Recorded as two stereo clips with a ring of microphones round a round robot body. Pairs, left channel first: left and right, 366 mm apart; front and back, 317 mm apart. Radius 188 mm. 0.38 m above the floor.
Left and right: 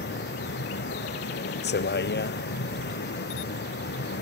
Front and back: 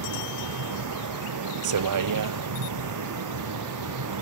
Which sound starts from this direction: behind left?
A vehicle, at 0.0 s.